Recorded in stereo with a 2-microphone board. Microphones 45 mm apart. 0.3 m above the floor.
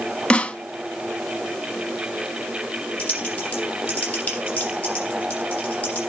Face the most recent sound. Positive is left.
turn(degrees=30)  # may be behind; listen again after turning